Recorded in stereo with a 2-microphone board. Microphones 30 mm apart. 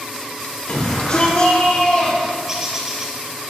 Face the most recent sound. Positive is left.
turn(degrees=-15)  # may be behind; listen again after turning